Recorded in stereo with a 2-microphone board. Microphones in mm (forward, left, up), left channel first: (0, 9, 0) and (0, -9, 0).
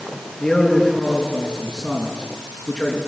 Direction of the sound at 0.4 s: 20° left (ahead or behind).